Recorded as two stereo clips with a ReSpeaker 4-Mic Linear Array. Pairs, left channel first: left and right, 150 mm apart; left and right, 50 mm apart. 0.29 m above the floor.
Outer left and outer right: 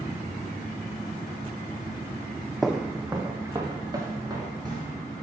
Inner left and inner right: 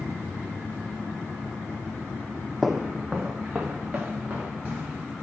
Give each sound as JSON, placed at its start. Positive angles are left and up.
{"t": 2.6, "sound": "footsteps", "side_deg": 0, "distance_m": 0.7}